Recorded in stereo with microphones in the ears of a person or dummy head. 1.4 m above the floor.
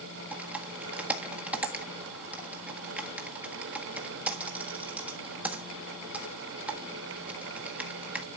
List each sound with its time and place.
0.3 s typing on a keyboard: 5° right (ahead or behind), 1.5 m